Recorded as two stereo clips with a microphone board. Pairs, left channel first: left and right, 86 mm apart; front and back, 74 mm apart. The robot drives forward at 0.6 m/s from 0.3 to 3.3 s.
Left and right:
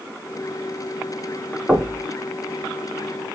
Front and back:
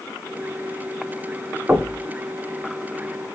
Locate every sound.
1.7 s knocking: 175° right, 0.8 m; by 2.0 s straight behind, 0.9 m